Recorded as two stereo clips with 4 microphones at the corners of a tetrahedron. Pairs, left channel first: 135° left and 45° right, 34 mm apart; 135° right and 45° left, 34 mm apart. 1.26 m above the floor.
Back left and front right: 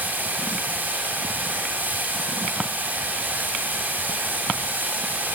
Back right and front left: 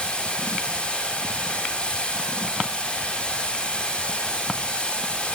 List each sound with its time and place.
0.0 s running water: 75° right, 7.5 m